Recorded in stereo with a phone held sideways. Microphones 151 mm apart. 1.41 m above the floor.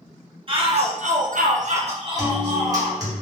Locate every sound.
0.5 s a shout: 40° right (ahead or behind), 0.8 m; by 3.0 s 20° right (ahead or behind), 1.2 m
2.2 s a guitar: 25° right (ahead or behind), 0.9 m